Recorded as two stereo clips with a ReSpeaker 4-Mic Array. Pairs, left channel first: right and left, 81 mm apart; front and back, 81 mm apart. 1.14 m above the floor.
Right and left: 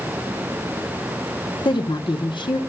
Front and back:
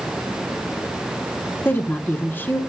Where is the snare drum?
I don't hear a snare drum.